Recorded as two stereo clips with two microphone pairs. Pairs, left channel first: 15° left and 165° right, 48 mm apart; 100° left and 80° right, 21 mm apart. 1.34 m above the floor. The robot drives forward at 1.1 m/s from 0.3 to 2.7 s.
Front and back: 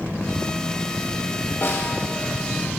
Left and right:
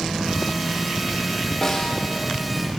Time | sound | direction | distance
1.6 | a snare drum | 25° left | 1.8 m